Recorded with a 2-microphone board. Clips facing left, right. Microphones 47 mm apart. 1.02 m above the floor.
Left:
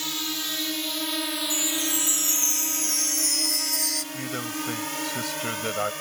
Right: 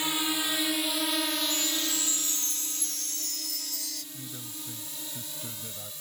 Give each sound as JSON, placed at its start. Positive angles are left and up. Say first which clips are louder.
{"t": 0.0, "sound": "a drone", "louder": "right 2 dB", "side_deg": -15}
{"t": 1.5, "sound": "a chime", "louder": "left 3 dB", "side_deg": 70}
{"t": 4.1, "sound": "a man speaking", "louder": "left 13 dB", "side_deg": 80}